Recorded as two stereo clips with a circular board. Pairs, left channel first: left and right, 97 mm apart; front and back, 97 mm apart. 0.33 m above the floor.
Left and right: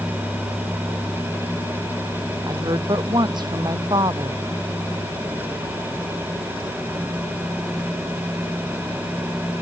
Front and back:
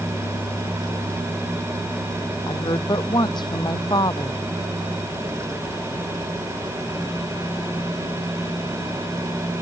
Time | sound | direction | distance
2.5 | a woman speaking | 45° right | ?